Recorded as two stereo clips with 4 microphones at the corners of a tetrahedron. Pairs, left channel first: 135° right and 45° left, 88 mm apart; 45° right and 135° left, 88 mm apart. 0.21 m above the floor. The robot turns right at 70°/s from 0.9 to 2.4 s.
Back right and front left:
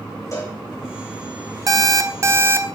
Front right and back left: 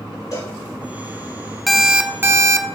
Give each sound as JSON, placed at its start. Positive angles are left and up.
{"t": 0.3, "sound": "a cowbell", "azimuth_deg": -85, "distance_m": 5.0}
{"t": 1.7, "sound": "an alarm clock", "azimuth_deg": 45, "distance_m": 0.8}